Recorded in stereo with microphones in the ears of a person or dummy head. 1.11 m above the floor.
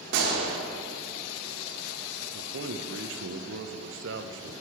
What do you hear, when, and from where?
0.1 s a gunshot: 60° right (ahead or behind), 1.3 m
2.3 s a man speaking: 65° right (ahead or behind), 0.6 m